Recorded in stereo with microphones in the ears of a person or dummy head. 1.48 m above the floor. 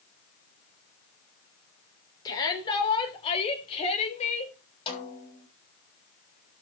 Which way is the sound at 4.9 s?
30° left (ahead or behind).